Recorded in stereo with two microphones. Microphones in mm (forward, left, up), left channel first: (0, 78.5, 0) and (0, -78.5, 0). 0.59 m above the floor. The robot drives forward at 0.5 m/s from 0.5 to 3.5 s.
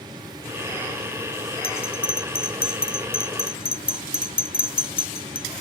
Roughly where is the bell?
Left.